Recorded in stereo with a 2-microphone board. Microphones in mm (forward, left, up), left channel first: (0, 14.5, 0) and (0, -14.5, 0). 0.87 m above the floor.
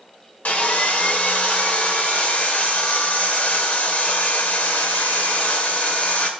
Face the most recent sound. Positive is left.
turn(degrees=60)  # may be behind; listen again after turning